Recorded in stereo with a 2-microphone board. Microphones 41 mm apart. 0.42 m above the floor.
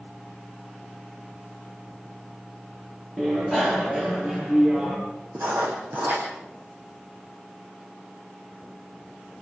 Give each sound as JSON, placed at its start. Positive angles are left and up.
{"t": 3.2, "sound": "a bicycle bell", "side_deg": 0, "distance_m": 8.0}
{"t": 5.3, "sound": "writing", "side_deg": -55, "distance_m": 8.0}